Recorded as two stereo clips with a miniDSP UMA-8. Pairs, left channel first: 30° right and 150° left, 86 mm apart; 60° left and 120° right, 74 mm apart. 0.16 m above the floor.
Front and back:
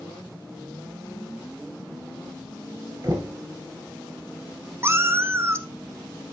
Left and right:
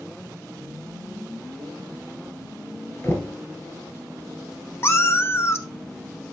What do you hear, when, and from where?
3.0 s knocking: 110° left, 1.8 m
4.8 s a cat meowing: 100° left, 0.8 m